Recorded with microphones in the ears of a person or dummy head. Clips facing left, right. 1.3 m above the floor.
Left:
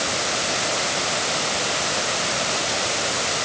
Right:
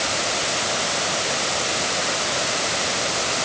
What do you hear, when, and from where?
Only background noise.